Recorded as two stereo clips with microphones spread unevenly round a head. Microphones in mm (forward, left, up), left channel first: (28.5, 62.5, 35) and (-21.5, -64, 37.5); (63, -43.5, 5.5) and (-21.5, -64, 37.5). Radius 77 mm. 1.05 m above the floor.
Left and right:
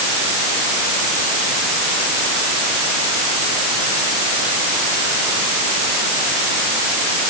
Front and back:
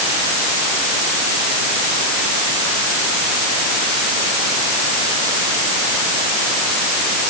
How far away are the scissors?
I don't hear scissors.